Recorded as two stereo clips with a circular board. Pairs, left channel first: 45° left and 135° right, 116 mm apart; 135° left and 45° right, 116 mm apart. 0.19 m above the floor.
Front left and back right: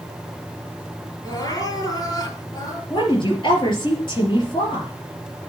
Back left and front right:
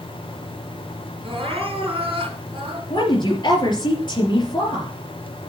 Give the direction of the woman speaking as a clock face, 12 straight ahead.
9 o'clock.